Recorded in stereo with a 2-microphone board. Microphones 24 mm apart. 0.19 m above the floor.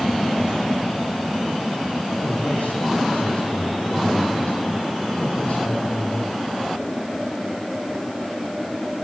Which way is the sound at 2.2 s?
80° left.